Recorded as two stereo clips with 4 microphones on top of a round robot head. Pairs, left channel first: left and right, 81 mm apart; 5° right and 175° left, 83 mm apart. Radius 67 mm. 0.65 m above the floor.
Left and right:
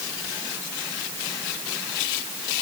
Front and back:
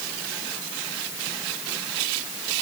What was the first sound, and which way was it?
Only background noise.